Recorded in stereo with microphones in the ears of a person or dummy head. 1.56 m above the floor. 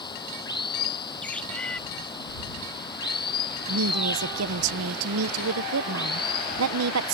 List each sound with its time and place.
0.0 s running water: 25° left (ahead or behind)
1.2 s a bird: 10° left (ahead or behind)
3.7 s a woman speaking: 80° right